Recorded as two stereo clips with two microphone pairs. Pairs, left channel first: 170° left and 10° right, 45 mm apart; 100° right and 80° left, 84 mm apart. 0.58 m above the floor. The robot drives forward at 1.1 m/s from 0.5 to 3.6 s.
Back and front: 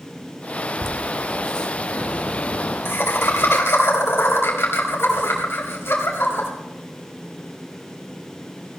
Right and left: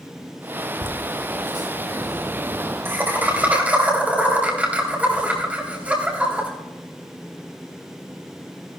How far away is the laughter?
About 1.7 m.